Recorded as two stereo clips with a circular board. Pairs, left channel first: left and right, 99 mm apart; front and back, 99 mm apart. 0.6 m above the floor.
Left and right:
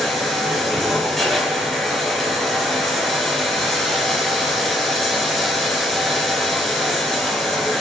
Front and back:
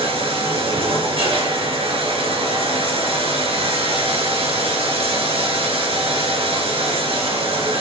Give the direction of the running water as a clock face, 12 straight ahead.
6 o'clock.